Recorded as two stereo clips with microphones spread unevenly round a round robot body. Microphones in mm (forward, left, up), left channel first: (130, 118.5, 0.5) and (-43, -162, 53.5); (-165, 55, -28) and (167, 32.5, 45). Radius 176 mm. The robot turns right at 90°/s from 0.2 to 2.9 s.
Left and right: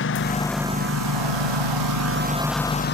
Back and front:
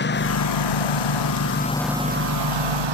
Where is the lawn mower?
115° left; by 3.0 s straight ahead.